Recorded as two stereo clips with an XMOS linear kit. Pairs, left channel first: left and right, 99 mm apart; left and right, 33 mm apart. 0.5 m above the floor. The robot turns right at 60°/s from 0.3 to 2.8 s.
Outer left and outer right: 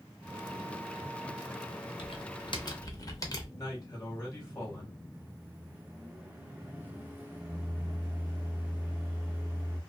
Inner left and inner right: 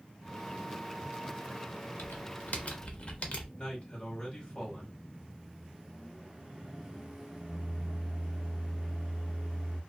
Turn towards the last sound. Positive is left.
turn(degrees=-20)  # may be behind; listen again after turning